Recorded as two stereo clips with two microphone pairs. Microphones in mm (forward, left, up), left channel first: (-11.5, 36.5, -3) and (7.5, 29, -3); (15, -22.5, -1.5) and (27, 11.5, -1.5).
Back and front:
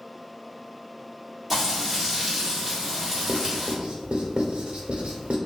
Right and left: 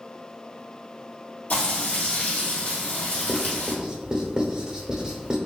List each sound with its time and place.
1.5 s frying: 95° right, 1.6 m
3.3 s writing: straight ahead, 0.8 m